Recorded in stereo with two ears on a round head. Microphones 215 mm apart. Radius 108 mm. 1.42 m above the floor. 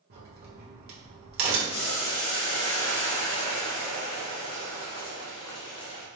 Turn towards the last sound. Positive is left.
turn(degrees=70)  # may be behind; listen again after turning